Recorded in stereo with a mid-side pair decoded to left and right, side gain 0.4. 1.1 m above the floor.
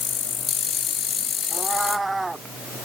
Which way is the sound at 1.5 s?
20° right.